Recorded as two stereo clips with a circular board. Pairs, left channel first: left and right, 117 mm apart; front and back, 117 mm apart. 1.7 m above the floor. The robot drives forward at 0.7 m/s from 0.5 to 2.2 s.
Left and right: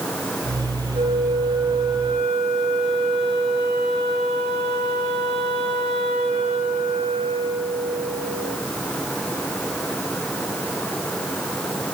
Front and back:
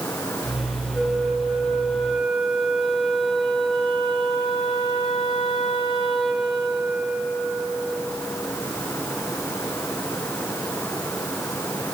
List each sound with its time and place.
0.9 s a flute: 80° right, 4.5 m; by 8.6 s 90° right, 4.5 m